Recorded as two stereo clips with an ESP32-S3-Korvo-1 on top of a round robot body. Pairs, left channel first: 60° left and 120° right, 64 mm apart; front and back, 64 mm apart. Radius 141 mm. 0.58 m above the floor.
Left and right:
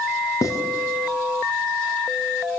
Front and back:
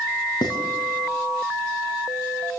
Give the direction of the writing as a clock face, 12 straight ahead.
11 o'clock.